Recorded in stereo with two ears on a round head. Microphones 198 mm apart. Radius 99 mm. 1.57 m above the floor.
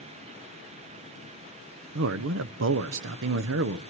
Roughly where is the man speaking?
Right.